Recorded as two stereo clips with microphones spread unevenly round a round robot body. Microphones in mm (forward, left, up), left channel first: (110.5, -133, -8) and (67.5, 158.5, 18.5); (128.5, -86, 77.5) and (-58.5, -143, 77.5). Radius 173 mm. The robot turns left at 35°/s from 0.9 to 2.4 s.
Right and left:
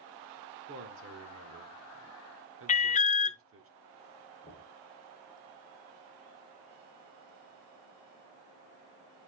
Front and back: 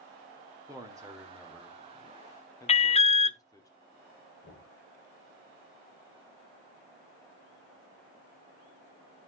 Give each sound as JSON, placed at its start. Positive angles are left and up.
{"t": 0.7, "sound": "a man speaking", "azimuth_deg": 135, "distance_m": 1.0}
{"t": 2.7, "sound": "an alarm", "azimuth_deg": -35, "distance_m": 0.6}
{"t": 4.4, "sound": "knocking", "azimuth_deg": 0, "distance_m": 6.0}